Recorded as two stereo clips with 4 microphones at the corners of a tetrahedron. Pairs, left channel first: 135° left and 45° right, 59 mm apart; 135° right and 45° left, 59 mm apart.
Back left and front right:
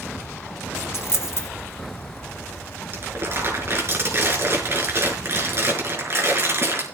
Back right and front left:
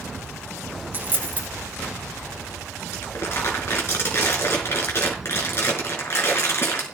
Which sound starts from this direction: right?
Crumpling, at 2.9 s.